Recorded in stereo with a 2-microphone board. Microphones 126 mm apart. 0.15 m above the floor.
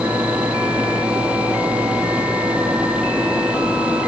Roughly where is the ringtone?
I don't hear a ringtone.